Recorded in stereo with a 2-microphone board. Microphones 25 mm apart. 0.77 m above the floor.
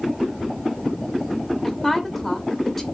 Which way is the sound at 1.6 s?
5° left (ahead or behind).